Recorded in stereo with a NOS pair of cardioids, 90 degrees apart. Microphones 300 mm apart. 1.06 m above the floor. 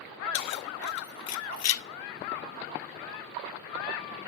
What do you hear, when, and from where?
0.3 s keys jangling: 70° left, 1.7 m; by 1.8 s 45° left, 0.5 m